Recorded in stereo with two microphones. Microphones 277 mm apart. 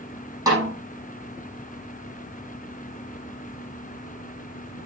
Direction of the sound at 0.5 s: 10° right (ahead or behind).